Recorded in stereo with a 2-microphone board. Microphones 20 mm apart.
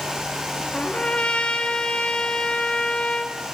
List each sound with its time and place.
0.7 s a trumpet: 65° left (ahead or behind), 1.3 m